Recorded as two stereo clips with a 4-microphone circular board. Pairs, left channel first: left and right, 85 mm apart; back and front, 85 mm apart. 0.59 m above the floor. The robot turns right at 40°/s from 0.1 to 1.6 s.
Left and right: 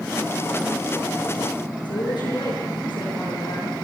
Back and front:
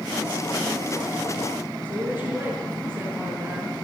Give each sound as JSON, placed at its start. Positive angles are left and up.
{"t": 1.9, "sound": "a woman speaking", "azimuth_deg": 65, "distance_m": 9.0}